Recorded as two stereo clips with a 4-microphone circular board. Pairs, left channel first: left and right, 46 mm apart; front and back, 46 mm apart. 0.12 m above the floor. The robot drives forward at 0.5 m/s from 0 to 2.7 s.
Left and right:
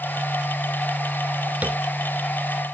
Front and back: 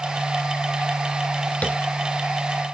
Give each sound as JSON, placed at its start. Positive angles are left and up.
{"t": 1.6, "sound": "tapping", "azimuth_deg": -50, "distance_m": 1.1}